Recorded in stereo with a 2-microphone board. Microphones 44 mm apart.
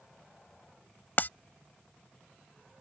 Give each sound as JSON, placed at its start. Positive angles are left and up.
{"t": 1.2, "sound": "breaking glass", "side_deg": 50}